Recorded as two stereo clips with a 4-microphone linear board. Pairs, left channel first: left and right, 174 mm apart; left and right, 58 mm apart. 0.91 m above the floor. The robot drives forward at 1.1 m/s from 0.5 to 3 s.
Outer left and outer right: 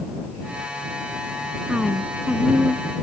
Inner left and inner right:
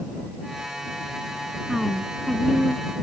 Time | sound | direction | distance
1.7 | a woman speaking | 5° right (ahead or behind) | ?